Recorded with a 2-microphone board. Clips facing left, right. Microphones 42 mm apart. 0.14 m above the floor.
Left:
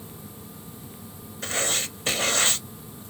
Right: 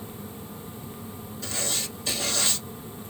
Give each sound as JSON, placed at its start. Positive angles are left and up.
{"t": 1.4, "sound": "writing", "side_deg": 45, "distance_m": 0.6}